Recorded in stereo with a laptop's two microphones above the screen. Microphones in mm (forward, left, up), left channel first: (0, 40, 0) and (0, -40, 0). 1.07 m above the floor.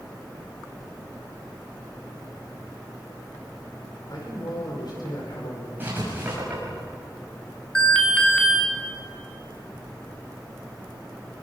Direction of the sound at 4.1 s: 60° left (ahead or behind).